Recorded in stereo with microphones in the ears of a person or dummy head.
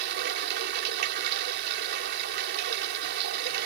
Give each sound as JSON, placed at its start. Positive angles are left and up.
{"t": 0.0, "sound": "running water", "side_deg": -55}